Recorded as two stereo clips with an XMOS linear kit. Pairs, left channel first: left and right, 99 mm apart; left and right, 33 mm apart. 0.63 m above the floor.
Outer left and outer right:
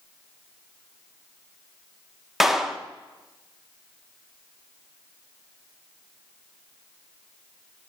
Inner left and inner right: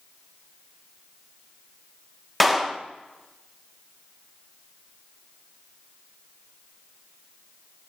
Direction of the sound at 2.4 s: 5° right (ahead or behind).